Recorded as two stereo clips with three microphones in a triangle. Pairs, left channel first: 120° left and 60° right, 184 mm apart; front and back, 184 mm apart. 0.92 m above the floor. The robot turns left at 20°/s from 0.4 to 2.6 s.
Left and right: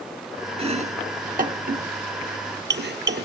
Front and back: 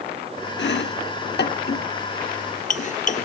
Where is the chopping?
5° right, 1.1 m; by 3.3 s 45° right, 1.1 m.